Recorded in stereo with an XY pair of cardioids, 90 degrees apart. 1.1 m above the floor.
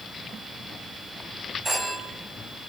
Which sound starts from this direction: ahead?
A phone ringing, at 1.6 s.